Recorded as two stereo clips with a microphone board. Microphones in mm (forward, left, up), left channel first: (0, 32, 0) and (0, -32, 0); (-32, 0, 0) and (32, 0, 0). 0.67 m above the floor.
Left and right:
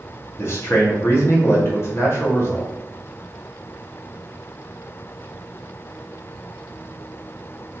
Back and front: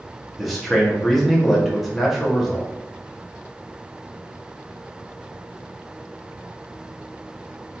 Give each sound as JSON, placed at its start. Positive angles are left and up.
{"t": 0.4, "sound": "a man speaking", "azimuth_deg": 90, "distance_m": 0.8}